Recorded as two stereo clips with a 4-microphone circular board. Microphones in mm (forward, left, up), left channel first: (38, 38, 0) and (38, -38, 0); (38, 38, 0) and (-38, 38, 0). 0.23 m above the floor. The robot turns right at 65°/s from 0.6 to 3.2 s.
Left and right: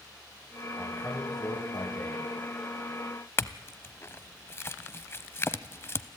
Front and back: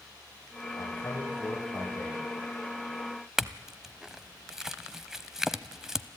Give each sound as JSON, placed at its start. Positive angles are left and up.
{"t": 0.8, "sound": "a man speaking", "azimuth_deg": 25, "distance_m": 8.0}
{"t": 3.4, "sound": "a clink", "azimuth_deg": 100, "distance_m": 0.7}